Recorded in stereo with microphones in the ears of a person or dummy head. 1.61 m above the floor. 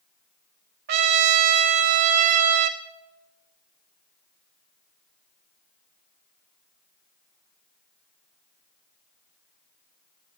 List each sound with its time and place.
0.9 s a trumpet: 55° right (ahead or behind), 1.9 m